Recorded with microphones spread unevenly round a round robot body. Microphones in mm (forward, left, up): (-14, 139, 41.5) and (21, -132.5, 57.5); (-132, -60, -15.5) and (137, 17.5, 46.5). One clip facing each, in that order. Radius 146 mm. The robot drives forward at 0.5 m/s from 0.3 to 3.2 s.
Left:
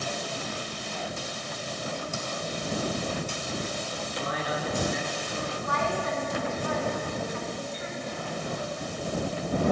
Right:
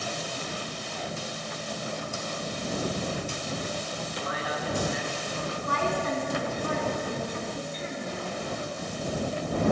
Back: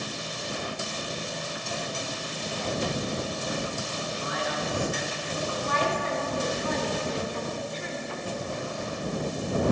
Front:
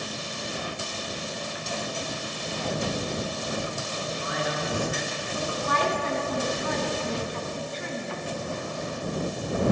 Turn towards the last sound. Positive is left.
turn(degrees=-25)